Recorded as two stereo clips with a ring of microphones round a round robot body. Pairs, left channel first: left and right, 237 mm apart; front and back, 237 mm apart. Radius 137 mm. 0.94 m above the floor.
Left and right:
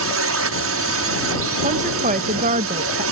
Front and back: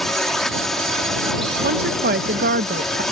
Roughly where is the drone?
Right.